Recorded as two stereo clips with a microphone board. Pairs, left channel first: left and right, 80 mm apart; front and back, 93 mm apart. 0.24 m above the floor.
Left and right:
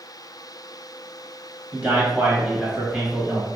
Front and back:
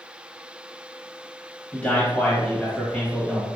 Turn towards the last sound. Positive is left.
turn(degrees=-35)